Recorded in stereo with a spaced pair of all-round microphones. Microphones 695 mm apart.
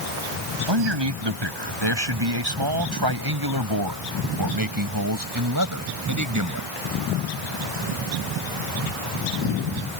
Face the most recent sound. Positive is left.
turn(degrees=-25)  # may be behind; listen again after turning